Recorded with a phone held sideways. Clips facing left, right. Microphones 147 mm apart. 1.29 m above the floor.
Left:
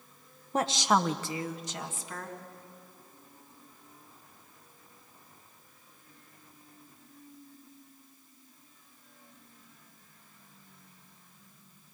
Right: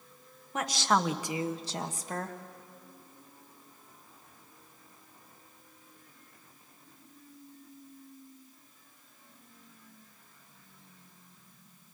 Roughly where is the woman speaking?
Left.